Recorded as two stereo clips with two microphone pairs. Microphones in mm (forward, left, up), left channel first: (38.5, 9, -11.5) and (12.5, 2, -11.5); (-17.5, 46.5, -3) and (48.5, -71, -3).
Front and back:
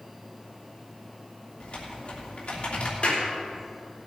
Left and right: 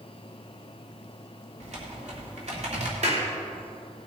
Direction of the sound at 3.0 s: 30° right.